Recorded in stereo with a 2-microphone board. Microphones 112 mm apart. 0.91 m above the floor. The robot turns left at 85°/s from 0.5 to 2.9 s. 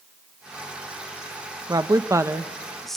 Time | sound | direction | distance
1.7 | a woman speaking | 85° right | 0.8 m